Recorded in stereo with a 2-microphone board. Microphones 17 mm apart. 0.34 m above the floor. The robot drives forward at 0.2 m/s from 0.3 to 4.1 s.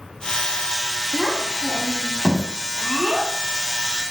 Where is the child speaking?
55° right (ahead or behind), 1.5 m; by 4.1 s 65° right (ahead or behind), 1.4 m.